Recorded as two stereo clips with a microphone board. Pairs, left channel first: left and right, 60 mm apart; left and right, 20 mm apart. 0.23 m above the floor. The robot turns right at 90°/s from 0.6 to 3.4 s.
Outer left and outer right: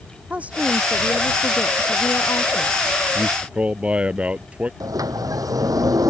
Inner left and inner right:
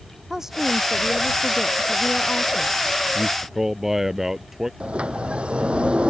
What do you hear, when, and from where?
0.3 s a woman speaking: 25° right; by 2.9 s 175° right
3.1 s a man speaking: 40° right (ahead or behind); by 4.7 s 20° right (ahead or behind)
4.8 s a sliding door: 80° right